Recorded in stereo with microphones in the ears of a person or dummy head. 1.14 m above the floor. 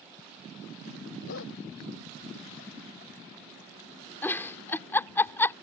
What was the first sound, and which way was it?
A dog barking, 75° left (ahead or behind).